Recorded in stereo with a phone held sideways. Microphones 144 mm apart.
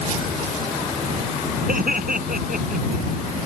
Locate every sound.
1.7 s laughter: 80° right